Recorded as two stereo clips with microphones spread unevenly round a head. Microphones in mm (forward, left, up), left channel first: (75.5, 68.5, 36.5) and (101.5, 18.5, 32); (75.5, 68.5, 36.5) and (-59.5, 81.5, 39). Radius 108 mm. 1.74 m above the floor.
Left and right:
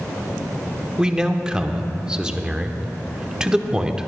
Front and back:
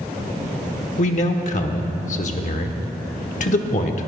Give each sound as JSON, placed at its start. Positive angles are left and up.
{"t": 1.0, "sound": "a man speaking", "azimuth_deg": 15, "distance_m": 1.0}